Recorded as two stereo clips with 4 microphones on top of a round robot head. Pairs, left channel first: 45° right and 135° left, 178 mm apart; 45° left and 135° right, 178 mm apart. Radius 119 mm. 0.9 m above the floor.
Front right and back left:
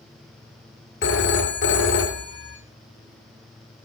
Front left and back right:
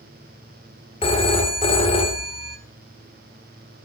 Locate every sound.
1.0 s a phone ringing: 20° right, 1.5 m